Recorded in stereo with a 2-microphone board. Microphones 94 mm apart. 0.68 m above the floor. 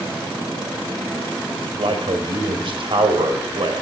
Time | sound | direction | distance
1.8 | a man speaking | 65° right (ahead or behind) | 2.5 m